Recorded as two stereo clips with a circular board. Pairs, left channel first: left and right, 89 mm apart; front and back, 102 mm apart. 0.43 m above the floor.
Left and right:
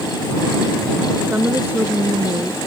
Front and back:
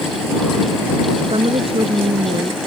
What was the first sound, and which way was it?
A woman speaking, 160° right.